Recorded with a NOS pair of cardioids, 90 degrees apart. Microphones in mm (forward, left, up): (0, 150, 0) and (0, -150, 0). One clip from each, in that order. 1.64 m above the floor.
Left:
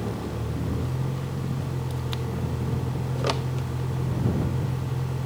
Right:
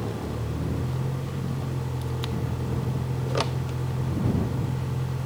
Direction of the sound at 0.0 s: Straight ahead.